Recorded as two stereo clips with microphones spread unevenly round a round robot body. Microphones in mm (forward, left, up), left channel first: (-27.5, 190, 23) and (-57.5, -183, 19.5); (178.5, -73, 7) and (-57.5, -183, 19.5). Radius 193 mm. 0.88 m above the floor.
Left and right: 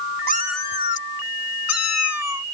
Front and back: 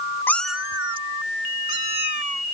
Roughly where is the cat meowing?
Ahead right.